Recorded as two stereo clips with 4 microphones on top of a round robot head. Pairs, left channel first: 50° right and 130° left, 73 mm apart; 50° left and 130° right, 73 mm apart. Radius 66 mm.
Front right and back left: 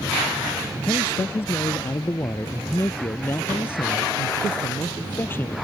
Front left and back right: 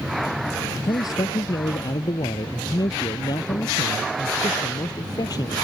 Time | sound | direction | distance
0.8 | a man speaking | 10° left | ?